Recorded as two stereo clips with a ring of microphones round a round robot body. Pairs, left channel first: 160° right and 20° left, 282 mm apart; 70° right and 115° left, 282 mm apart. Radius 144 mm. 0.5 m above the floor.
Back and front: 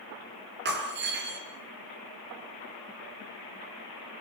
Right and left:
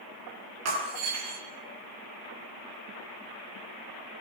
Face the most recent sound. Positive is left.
turn(degrees=75)